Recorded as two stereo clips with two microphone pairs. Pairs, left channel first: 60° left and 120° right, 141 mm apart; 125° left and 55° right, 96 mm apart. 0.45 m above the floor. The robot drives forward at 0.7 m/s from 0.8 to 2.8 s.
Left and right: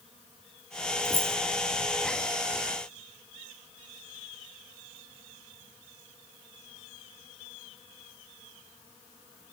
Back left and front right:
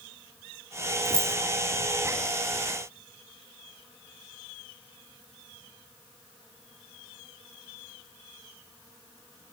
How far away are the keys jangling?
About 0.8 m.